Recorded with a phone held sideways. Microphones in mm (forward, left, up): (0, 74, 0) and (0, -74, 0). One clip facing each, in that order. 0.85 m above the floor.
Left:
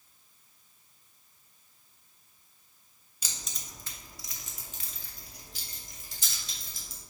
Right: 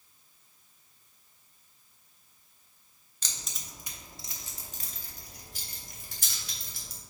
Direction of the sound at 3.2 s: 10° left (ahead or behind).